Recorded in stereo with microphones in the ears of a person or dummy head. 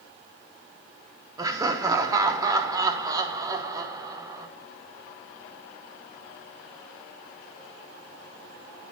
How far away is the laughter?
About 1.1 m.